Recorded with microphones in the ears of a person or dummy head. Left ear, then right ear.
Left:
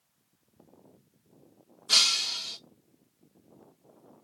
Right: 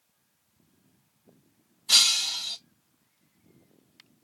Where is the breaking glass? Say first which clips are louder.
Right 2 dB; 20° right (ahead or behind), 1.3 m.